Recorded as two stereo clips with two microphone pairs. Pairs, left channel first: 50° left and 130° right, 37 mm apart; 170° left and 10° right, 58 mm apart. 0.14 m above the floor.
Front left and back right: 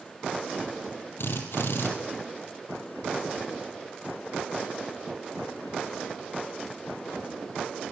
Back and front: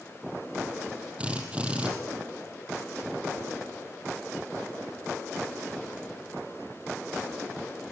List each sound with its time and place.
1.2 s a drill: 60° left, 4.5 m